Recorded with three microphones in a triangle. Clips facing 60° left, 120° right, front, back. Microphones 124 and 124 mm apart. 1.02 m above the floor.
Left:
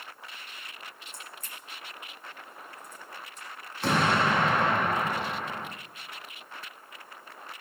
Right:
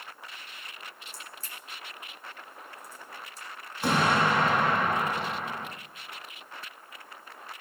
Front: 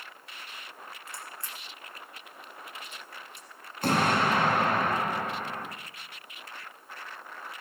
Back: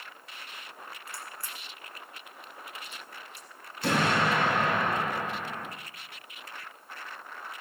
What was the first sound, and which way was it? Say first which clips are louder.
A crack: even, even; 65° right.